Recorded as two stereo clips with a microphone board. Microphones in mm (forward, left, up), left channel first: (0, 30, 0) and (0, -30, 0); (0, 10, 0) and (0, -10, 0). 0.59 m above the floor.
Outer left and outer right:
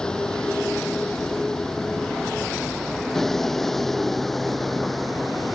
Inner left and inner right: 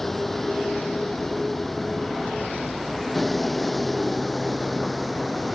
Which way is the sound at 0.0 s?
15° left (ahead or behind).